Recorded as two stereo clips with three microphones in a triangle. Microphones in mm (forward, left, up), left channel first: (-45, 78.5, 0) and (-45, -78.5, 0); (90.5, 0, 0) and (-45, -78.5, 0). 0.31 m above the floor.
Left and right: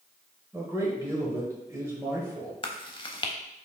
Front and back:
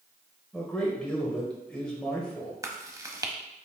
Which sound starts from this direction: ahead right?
A man speaking, at 0.5 s.